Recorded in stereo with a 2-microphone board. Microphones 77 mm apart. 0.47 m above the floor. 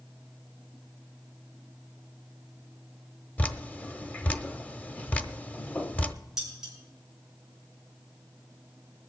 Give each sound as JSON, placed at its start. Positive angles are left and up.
{"t": 3.4, "sound": "dripping", "side_deg": 20, "distance_m": 0.6}
{"t": 6.4, "sound": "dishes clattering", "side_deg": -5, "distance_m": 6.0}